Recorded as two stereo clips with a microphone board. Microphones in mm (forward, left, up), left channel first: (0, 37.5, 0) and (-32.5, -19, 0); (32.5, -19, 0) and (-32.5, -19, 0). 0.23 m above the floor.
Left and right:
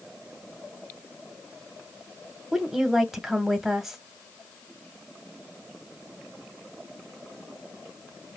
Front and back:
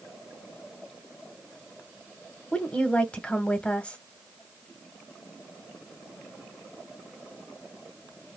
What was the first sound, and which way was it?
A woman speaking, 40° right.